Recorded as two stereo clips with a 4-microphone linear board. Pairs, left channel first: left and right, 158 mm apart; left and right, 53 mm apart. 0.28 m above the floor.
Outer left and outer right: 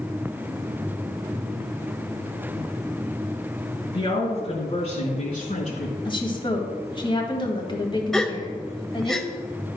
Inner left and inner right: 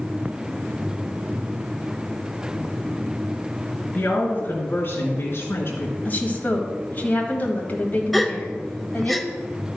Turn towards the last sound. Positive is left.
turn(degrees=5)  # may be behind; listen again after turning